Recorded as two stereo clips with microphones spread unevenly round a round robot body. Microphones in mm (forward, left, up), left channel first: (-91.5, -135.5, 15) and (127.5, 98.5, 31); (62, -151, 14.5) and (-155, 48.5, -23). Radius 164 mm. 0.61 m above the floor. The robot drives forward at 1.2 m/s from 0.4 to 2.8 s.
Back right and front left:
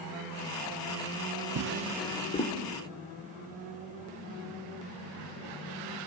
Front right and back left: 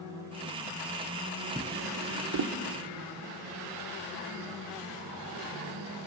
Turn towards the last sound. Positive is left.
turn(degrees=165)